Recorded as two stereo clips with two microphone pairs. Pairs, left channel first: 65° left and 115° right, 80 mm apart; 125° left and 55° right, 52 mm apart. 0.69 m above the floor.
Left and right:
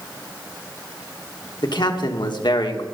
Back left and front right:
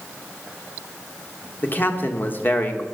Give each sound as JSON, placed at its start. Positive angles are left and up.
{"t": 1.6, "sound": "a man speaking", "azimuth_deg": 75, "distance_m": 1.4}